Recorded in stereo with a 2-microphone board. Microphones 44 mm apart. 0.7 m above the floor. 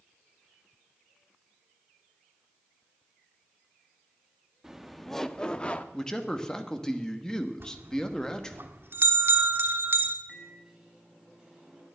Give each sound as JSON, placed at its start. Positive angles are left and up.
{"t": 4.6, "sound": "laughter", "side_deg": -10, "distance_m": 0.8}
{"t": 5.9, "sound": "a man speaking", "side_deg": 15, "distance_m": 1.2}
{"t": 7.6, "sound": "a bell", "side_deg": -55, "distance_m": 1.2}
{"t": 10.3, "sound": "a microwave", "side_deg": -10, "distance_m": 4.5}